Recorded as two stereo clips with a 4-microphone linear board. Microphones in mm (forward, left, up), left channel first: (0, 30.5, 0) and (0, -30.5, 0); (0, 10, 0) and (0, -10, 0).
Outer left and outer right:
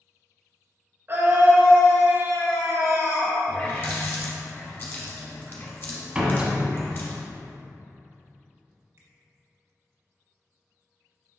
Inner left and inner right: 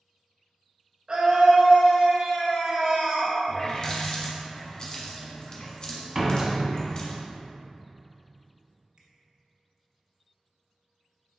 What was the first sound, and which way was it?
A scream, 40° right (ahead or behind).